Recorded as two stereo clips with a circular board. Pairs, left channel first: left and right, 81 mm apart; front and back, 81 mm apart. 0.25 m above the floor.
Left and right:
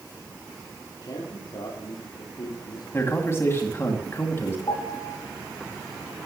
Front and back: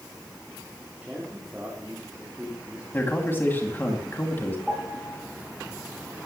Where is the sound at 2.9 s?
50° left, 2 m.